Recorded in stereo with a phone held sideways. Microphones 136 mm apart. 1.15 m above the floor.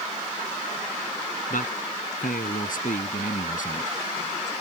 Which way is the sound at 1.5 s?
85° left.